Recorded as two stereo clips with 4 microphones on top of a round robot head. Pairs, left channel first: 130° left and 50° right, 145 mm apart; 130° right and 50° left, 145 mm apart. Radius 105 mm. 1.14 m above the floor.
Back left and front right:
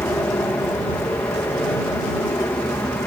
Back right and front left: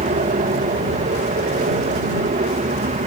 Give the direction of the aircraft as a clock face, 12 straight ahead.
10 o'clock.